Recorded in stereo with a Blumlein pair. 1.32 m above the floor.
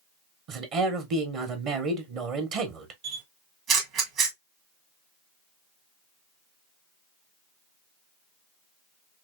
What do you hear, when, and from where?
0.5 s a man speaking: 35° right, 1.1 m
3.0 s a camera shutter: 35° right, 1.6 m